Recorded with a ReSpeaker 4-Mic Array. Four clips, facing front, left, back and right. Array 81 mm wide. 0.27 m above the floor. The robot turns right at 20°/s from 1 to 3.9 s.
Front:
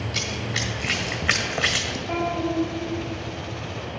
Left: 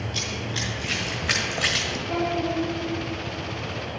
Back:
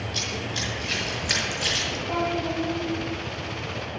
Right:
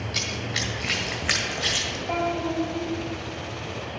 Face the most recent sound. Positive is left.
turn(degrees=-40)